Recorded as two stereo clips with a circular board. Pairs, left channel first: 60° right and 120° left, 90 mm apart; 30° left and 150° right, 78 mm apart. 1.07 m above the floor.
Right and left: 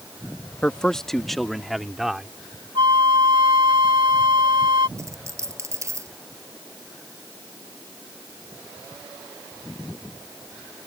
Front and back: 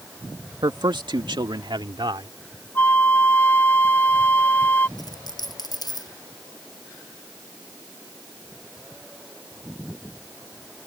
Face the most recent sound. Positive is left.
turn(degrees=60)